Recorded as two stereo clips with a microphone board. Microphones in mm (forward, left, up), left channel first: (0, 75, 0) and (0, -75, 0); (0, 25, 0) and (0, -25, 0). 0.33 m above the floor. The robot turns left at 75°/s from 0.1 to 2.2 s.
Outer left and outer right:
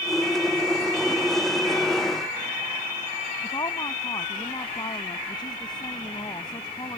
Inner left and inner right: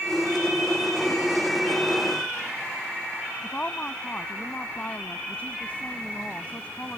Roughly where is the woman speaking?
Left.